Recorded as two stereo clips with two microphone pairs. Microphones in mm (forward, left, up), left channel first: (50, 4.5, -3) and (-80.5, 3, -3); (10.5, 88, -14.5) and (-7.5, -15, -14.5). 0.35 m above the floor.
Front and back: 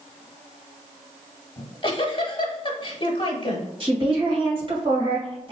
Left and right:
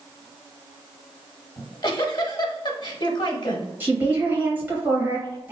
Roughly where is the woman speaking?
Behind.